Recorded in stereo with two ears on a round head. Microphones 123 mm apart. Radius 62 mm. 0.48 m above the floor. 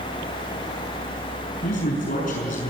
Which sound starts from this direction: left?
A man speaking, at 1.6 s.